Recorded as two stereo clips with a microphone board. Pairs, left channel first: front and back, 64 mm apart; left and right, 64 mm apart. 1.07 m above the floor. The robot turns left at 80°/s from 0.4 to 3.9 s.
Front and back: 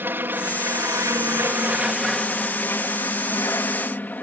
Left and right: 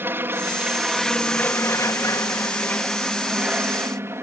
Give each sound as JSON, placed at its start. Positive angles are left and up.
{"t": 0.0, "sound": "an aircraft", "azimuth_deg": -135}